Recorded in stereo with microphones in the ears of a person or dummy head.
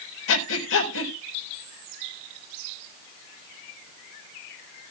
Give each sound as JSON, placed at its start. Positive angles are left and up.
{"t": 0.3, "sound": "breathing", "side_deg": 75, "distance_m": 4.0}